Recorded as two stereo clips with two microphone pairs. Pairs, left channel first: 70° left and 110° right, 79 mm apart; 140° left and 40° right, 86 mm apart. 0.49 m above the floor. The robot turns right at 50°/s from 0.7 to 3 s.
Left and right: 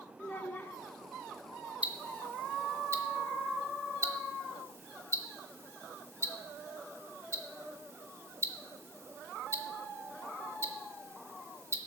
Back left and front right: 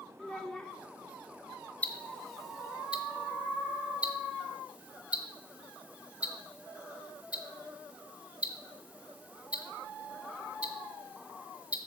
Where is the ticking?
165° right, 0.9 m; by 11.8 s 105° right, 0.9 m.